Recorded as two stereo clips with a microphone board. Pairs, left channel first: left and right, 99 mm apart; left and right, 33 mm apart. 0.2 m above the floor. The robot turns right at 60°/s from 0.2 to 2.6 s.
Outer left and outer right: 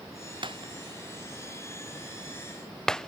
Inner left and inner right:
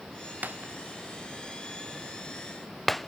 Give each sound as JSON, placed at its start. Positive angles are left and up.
{"t": 0.4, "sound": "breaking glass", "side_deg": -55}